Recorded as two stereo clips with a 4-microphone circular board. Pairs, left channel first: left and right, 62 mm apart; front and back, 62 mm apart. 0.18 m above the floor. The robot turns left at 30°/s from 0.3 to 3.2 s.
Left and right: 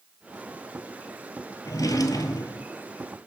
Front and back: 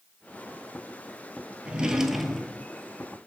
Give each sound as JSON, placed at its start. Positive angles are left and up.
{"t": 1.6, "sound": "a drawer", "azimuth_deg": 110, "distance_m": 0.9}